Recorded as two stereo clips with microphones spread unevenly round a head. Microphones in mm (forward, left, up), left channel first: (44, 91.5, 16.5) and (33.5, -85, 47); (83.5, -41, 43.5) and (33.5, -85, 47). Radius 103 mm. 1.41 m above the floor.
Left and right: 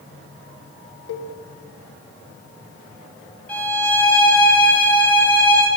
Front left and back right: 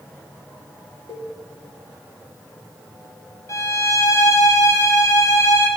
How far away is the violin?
About 6 m.